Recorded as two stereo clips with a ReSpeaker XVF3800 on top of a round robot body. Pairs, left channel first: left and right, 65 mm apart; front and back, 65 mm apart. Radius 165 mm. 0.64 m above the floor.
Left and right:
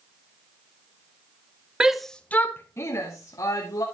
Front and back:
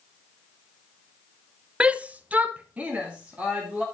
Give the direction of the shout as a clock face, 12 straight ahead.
5 o'clock.